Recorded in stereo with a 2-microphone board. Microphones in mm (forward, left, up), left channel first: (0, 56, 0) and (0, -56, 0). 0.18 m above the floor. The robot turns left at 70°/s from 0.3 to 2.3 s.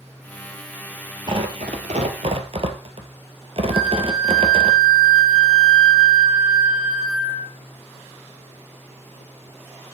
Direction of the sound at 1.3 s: 45° right (ahead or behind).